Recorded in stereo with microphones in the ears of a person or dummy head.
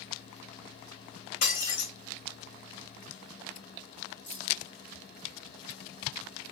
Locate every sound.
1.4 s breaking glass: 45° left (ahead or behind), 1.8 m
4.3 s keys jangling: 10° left (ahead or behind), 1.2 m